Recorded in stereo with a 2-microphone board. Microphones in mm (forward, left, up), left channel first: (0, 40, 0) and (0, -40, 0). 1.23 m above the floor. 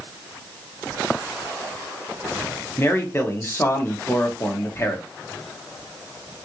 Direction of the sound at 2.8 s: 30° left (ahead or behind).